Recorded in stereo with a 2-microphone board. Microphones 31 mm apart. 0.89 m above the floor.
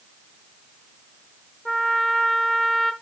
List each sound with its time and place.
1.6 s a trumpet: 20° left (ahead or behind), 0.8 m